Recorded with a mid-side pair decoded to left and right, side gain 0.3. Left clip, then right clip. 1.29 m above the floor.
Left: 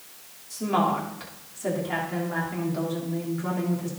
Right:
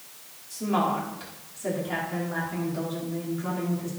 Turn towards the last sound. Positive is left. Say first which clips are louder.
# left 2 dB
turn(degrees=35)